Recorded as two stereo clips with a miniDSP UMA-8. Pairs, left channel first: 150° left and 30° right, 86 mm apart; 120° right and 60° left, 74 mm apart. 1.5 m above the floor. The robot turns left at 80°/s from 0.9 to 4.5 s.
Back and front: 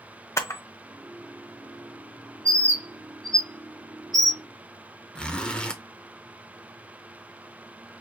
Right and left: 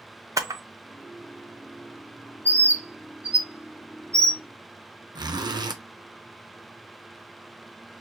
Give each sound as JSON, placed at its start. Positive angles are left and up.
{"t": 0.4, "sound": "a camera shutter", "azimuth_deg": 95, "distance_m": 0.7}
{"t": 2.5, "sound": "a bird", "azimuth_deg": -60, "distance_m": 1.0}
{"t": 5.2, "sound": "a zipper", "azimuth_deg": 70, "distance_m": 0.6}